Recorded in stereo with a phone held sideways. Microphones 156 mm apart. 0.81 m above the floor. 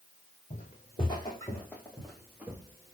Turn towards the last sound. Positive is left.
turn(degrees=-20)  # may be behind; listen again after turning